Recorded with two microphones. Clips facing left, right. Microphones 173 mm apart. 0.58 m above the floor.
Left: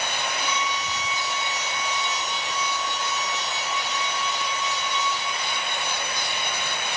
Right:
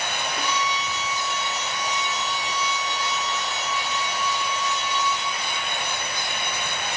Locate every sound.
0.4 s a violin: 65° right (ahead or behind), 1.4 m